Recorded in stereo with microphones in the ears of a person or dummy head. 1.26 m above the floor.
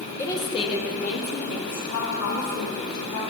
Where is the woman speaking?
10° left (ahead or behind), 1.7 m; by 3.2 s 85° left, 4 m.